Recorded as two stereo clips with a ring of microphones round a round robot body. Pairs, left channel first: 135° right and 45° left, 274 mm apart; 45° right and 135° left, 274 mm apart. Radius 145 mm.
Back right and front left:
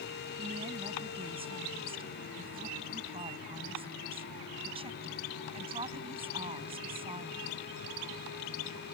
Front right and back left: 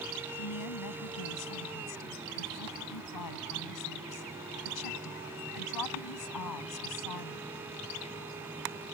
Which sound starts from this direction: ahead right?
A woman speaking, at 0.4 s.